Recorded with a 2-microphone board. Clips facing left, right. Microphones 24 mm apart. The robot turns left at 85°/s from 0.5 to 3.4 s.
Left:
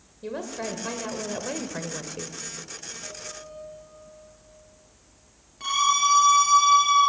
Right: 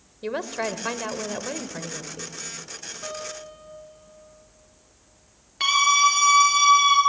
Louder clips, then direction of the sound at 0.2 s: Right 4 dB; 85° right.